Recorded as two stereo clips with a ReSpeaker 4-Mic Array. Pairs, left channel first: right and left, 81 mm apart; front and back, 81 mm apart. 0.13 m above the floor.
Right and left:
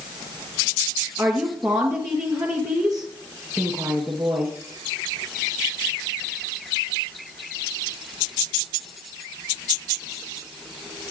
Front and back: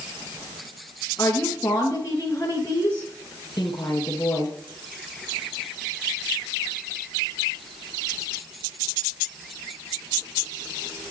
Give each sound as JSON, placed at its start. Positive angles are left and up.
{"t": 1.2, "sound": "a woman speaking", "azimuth_deg": 45, "distance_m": 2.0}